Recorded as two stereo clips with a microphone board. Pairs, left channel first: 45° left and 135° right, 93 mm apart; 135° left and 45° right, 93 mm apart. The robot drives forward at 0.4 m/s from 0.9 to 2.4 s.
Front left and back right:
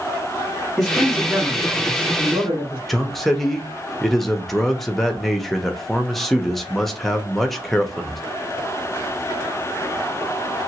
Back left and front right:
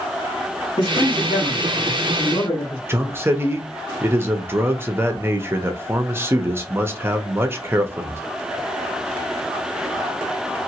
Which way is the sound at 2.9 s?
40° right.